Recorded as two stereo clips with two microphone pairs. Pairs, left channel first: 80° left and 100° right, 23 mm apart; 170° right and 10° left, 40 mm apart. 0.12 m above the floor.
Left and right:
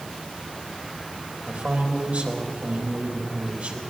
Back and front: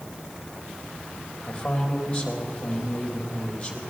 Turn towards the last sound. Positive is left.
turn(degrees=-95)